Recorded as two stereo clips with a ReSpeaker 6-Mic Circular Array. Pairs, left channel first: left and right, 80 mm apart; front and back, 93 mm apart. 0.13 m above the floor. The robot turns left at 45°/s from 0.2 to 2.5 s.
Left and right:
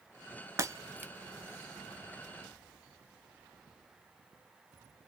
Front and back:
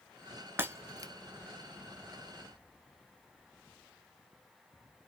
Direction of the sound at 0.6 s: 120° right.